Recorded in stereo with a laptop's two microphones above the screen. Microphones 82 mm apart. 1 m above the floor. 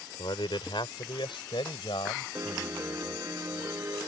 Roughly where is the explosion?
No explosion in this recording.